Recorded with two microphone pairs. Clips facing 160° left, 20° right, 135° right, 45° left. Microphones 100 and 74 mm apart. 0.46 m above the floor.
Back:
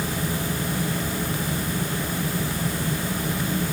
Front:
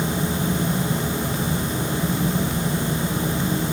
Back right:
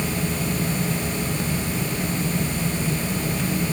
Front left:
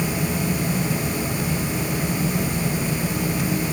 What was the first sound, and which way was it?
Only background noise.